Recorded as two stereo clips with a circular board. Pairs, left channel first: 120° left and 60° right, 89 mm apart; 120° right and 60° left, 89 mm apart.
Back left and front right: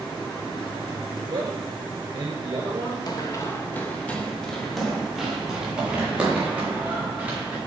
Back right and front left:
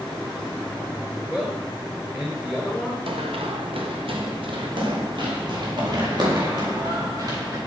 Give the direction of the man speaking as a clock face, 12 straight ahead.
12 o'clock.